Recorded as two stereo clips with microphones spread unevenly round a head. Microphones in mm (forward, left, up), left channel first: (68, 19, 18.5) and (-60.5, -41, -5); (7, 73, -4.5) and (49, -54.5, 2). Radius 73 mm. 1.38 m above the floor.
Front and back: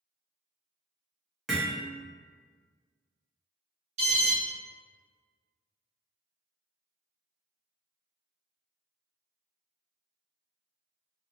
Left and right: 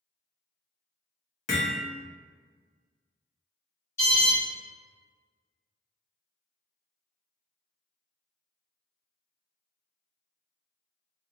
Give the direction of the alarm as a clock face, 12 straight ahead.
6 o'clock.